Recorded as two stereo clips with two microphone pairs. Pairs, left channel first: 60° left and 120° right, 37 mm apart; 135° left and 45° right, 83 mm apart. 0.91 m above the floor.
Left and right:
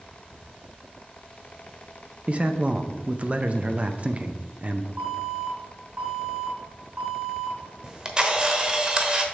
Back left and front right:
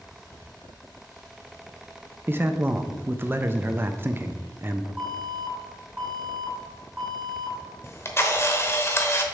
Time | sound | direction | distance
2.3 | a man speaking | 85° right | 0.6 m
5.0 | an alarm | 115° right | 3.5 m
7.8 | a camera shutter | straight behind | 0.9 m